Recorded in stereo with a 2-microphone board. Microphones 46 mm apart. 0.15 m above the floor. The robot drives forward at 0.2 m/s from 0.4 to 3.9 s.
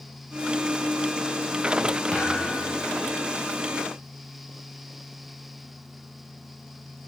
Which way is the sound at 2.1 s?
20° left (ahead or behind).